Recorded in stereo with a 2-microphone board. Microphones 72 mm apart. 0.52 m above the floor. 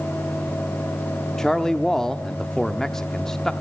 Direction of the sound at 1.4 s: 10° left (ahead or behind).